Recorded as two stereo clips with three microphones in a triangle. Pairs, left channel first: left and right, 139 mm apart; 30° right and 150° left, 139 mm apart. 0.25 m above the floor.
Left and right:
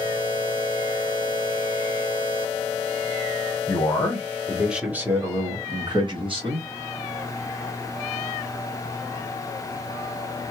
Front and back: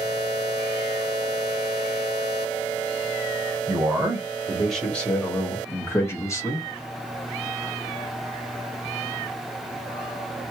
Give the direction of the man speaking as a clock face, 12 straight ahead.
9 o'clock.